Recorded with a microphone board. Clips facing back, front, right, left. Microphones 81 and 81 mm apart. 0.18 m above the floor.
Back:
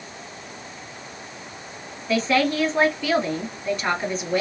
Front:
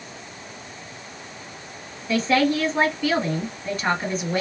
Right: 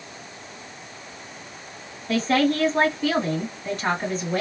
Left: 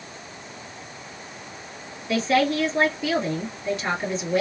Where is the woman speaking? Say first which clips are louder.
Front 1 dB, even; 90° right, 1.5 m.